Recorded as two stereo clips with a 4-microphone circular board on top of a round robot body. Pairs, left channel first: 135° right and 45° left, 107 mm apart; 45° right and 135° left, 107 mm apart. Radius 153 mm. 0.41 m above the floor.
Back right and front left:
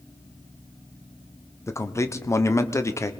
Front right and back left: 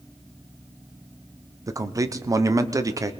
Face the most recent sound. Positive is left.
turn(degrees=175)